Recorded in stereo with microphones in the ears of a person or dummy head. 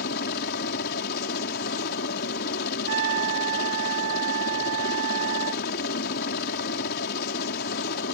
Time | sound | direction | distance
0.0 | a helicopter | 50° left (ahead or behind) | ?
2.9 | a trumpet | 50° right (ahead or behind) | ?